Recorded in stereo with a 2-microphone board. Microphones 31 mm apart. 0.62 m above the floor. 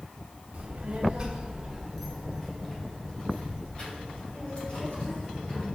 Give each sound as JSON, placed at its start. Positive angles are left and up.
{"t": 0.5, "sound": "a child speaking", "side_deg": -50, "distance_m": 1.3}